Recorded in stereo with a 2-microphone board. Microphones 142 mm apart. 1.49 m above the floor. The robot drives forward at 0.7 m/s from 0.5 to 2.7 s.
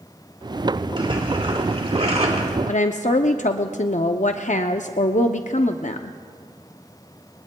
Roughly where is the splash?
Right.